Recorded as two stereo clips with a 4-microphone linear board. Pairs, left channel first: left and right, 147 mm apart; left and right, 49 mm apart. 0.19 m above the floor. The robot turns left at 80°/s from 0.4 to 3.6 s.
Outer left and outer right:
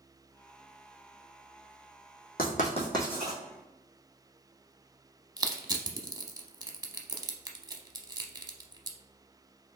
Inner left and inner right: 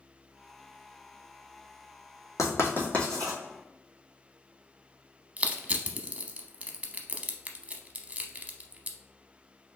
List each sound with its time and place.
2.4 s writing: 70° left (ahead or behind), 1.9 m; by 3.4 s 10° right (ahead or behind), 1.9 m
5.4 s crushing: 25° right (ahead or behind), 0.7 m